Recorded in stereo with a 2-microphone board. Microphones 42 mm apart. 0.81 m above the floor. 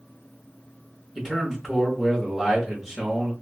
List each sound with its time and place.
1.1 s a man speaking: 10° right (ahead or behind), 1.1 m